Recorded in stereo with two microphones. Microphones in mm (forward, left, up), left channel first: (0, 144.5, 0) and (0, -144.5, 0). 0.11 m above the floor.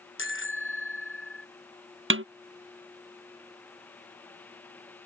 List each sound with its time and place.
0.2 s a bicycle bell: 45° left (ahead or behind)
2.1 s a snare drum: 45° right (ahead or behind)